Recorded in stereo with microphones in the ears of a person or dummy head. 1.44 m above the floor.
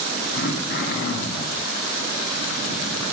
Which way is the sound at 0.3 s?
60° left (ahead or behind).